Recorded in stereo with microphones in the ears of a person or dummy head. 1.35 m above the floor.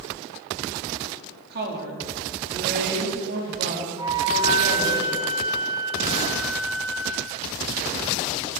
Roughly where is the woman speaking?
Right.